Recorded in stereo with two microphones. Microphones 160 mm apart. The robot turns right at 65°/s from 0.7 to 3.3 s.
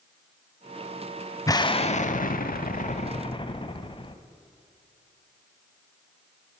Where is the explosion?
25° left, 0.7 m; by 4.2 s 145° left, 0.7 m.